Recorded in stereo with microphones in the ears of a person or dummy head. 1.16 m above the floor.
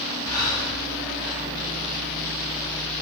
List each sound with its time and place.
0.3 s breathing: 20° left (ahead or behind), 1.9 m